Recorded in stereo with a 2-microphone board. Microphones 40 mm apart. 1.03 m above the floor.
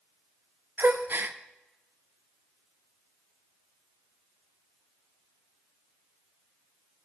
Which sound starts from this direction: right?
A gasp, at 0.8 s.